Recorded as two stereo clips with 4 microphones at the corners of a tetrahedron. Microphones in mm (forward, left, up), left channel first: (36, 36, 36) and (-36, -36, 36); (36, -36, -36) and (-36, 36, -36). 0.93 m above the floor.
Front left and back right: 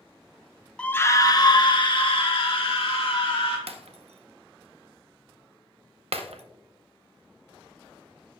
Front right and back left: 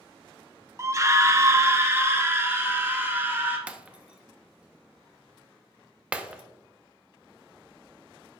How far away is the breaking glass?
About 0.7 m.